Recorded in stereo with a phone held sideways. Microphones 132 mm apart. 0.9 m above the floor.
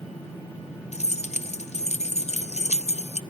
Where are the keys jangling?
60° left (ahead or behind), 0.6 m.